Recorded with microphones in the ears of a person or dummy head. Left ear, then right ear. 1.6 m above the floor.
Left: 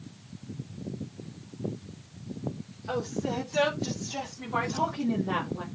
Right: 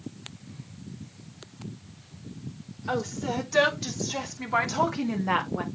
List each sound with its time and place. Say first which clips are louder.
2.9 s a woman speaking: right 2 dB; 75° right (ahead or behind), 5.5 m; by 5.7 s 55° right (ahead or behind), 2.5 m